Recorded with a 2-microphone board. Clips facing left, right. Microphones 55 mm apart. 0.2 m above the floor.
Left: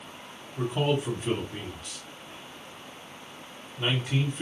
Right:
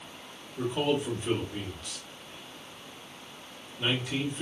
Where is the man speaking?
30° left (ahead or behind), 1.6 m.